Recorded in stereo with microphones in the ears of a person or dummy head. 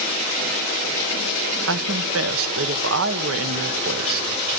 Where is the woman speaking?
75° right (ahead or behind), 1.3 m.